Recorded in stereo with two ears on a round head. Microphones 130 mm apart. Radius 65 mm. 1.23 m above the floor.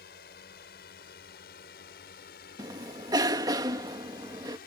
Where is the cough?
25° right (ahead or behind).